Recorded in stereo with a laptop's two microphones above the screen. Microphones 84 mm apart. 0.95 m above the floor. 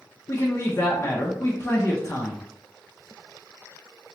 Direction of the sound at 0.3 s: 35° left (ahead or behind).